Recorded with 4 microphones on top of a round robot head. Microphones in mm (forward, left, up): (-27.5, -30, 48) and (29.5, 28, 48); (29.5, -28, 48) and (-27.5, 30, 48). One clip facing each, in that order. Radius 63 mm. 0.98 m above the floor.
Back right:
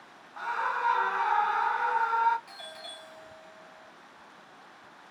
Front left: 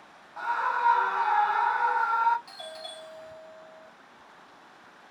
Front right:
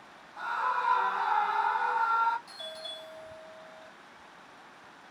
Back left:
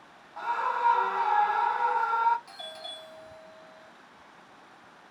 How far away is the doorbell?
About 1.9 m.